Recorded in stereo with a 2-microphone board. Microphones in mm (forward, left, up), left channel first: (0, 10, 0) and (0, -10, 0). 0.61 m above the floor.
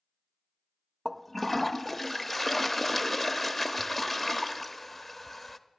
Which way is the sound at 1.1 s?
15° left (ahead or behind).